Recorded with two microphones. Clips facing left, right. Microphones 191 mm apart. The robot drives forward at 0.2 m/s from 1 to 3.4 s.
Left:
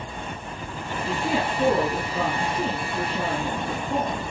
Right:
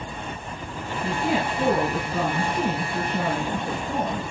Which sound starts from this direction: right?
A woman speaking, at 1.0 s.